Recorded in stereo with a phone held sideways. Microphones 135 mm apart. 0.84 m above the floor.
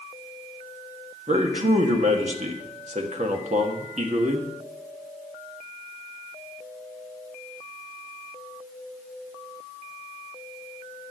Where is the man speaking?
60° right (ahead or behind), 1.3 m.